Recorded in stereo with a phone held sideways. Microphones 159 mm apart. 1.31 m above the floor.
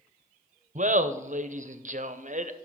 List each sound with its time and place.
0.8 s laughter: 50° right (ahead or behind), 0.7 m